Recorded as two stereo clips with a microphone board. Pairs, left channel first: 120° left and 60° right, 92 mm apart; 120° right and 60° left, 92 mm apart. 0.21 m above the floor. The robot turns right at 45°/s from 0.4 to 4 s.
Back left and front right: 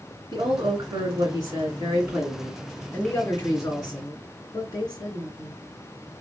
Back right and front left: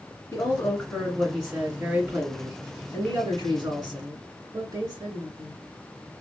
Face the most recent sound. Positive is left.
turn(degrees=90)